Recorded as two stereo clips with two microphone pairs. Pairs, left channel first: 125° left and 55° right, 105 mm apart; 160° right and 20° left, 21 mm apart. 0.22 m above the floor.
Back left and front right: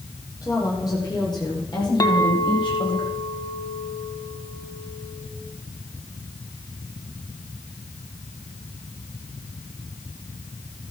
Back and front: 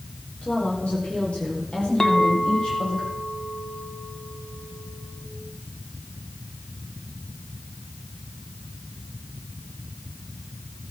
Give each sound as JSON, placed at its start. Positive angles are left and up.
{"t": 0.4, "sound": "a woman speaking", "azimuth_deg": 180, "distance_m": 8.0}
{"t": 2.0, "sound": "a clink", "azimuth_deg": 155, "distance_m": 1.2}